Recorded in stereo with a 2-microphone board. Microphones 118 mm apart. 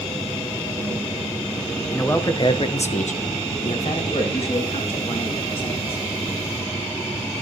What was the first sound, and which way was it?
A man speaking, 15° left (ahead or behind).